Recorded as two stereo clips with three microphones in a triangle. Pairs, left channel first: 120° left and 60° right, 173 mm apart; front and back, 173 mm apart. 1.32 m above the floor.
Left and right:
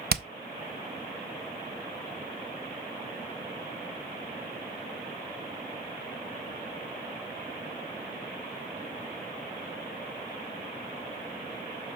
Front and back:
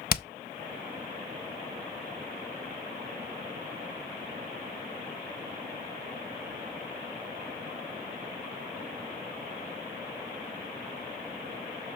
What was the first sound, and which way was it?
Hammering, 30° right.